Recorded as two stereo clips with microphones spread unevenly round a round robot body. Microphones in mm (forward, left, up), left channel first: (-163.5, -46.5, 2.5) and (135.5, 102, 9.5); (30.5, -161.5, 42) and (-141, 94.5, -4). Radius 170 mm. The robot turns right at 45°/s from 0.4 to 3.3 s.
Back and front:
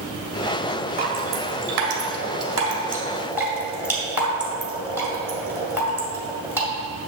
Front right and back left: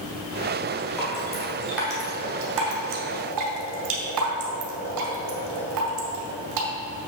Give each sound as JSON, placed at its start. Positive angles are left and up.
{"t": 1.0, "sound": "dripping", "azimuth_deg": 5, "distance_m": 1.8}